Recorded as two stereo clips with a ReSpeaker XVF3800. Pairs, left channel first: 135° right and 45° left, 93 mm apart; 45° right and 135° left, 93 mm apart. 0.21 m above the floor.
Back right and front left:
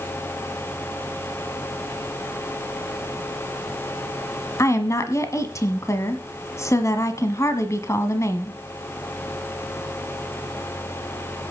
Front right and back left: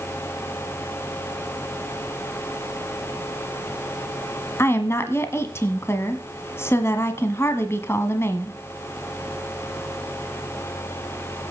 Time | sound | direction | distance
4.6 | a woman speaking | 95° right | 1.3 m